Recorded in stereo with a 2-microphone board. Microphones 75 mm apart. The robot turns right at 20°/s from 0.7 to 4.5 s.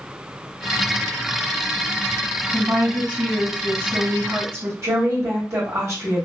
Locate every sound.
2.5 s a woman speaking: 175° right, 1.9 m; by 4.7 s 135° right, 1.9 m
4.8 s a woman speaking: 40° right (ahead or behind), 1.5 m